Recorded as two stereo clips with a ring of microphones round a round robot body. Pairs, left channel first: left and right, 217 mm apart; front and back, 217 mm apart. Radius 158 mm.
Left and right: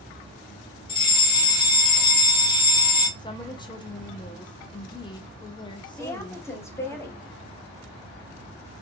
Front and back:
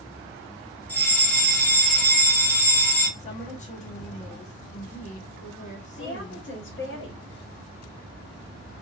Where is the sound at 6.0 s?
15° left, 1.4 m.